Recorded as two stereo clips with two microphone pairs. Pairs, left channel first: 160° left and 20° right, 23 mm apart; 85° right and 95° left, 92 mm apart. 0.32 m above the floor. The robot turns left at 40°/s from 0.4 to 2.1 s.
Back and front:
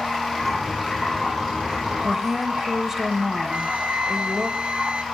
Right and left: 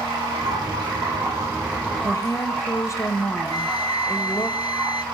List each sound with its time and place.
0.0 s running water: 75° left, 7.5 m; by 5.1 s 10° left, 7.5 m
2.0 s a woman speaking: 85° right, 1.2 m; by 4.5 s 90° right, 1.2 m
3.5 s a flute: 55° right, 0.5 m